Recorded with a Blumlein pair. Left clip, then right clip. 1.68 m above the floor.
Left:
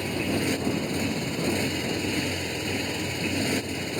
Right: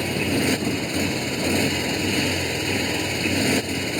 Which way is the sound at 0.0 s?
15° right.